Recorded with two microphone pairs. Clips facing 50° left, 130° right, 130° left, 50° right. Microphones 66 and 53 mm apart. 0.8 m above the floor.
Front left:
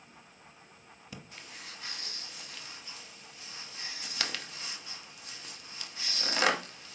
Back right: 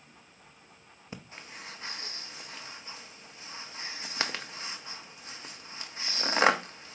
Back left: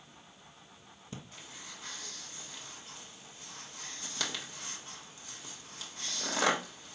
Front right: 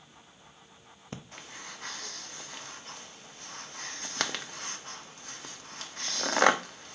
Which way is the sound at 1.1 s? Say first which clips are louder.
Back right 3 dB, front right 4 dB; 75° right.